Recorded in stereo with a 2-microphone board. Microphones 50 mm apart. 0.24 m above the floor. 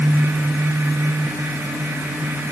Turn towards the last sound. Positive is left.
No sound to turn to.